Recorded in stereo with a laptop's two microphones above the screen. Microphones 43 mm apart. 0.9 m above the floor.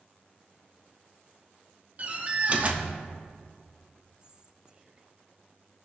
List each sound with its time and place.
2.0 s a door slam: 35° right (ahead or behind), 1.1 m
4.2 s whispering: 20° right (ahead or behind), 0.6 m